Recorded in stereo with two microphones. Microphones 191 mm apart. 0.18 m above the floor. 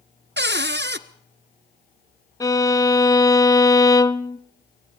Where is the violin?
20° left (ahead or behind), 0.7 m.